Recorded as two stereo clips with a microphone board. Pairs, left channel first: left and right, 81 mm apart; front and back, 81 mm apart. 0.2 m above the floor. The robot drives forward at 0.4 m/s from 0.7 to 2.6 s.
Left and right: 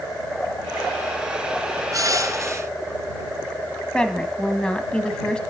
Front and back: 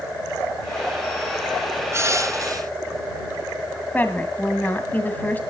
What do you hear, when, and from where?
1.9 s crushing: 130° right, 0.9 m; by 2.7 s 140° right, 1.1 m
3.9 s a woman speaking: 25° left, 1.0 m